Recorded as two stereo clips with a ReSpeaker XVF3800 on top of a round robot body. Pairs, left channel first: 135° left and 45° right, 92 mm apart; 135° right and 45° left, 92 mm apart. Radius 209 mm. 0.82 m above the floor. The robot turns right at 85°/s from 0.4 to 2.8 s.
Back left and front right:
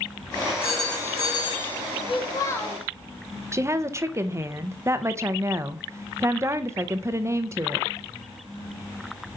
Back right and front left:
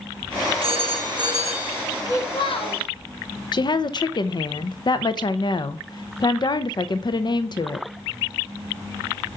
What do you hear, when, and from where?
0.6 s a phone ringing: 30° left, 3.5 m; by 1.8 s 130° left, 3.5 m
2.1 s a child speaking: 160° left, 1.3 m; by 2.8 s 135° right, 1.3 m
3.5 s a woman speaking: 100° right, 0.8 m